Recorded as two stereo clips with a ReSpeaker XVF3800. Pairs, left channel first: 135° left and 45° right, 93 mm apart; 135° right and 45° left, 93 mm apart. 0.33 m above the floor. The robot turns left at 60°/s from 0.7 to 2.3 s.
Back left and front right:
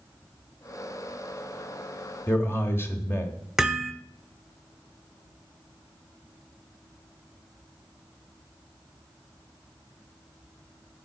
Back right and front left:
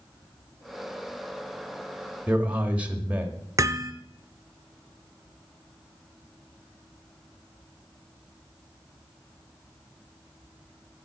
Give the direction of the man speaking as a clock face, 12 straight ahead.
9 o'clock.